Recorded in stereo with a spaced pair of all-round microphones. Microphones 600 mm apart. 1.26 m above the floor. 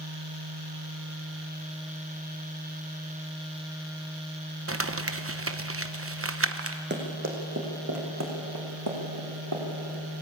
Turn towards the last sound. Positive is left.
turn(degrees=-35)  # may be behind; listen again after turning